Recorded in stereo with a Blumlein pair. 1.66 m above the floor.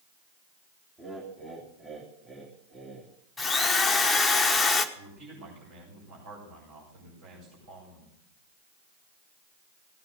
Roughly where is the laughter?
Ahead.